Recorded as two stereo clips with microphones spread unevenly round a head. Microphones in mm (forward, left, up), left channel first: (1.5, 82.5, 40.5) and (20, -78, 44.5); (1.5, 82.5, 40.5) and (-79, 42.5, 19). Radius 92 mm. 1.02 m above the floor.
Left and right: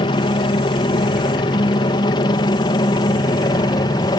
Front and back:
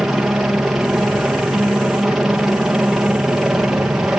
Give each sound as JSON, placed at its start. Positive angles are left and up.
{"t": 0.0, "sound": "a helicopter", "azimuth_deg": 135}